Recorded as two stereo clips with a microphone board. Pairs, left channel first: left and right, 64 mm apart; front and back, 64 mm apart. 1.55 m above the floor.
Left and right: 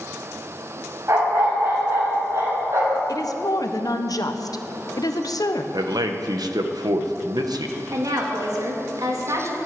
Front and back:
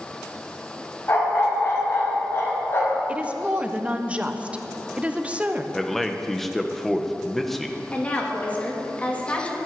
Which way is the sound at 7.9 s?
65° right.